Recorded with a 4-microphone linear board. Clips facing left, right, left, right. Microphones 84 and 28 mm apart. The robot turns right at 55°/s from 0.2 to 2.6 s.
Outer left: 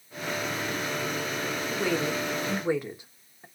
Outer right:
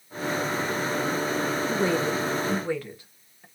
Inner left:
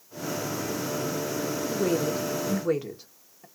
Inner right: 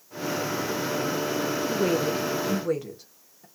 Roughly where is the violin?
No violin in this recording.